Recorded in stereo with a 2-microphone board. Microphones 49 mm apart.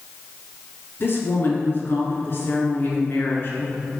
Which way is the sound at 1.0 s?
45° left (ahead or behind).